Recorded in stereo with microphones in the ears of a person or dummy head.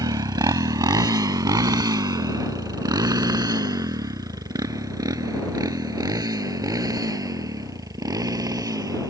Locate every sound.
0.0 s a motorcycle: 25° right (ahead or behind); by 9.1 s 20° right (ahead or behind)